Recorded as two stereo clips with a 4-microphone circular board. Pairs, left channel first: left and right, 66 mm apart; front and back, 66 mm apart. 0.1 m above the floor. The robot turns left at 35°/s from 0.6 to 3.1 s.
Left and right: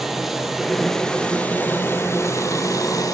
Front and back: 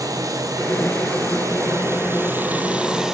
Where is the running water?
175° right, 2.5 m; by 3.1 s 100° left, 2.5 m.